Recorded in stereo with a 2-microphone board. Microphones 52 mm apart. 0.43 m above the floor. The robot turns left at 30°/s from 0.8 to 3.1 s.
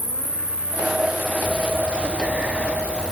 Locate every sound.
0.0 s an insect: 30° right, 1.7 m; by 3.1 s 100° right, 1.7 m
1.4 s breathing: 120° right, 0.7 m; by 3.1 s 170° right, 0.7 m